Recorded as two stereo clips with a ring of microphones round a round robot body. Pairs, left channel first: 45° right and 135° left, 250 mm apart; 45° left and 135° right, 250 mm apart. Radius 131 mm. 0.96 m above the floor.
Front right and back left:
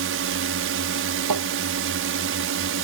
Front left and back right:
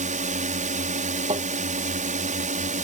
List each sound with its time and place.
0.0 s a drone: 165° left
1.3 s tapping: 155° left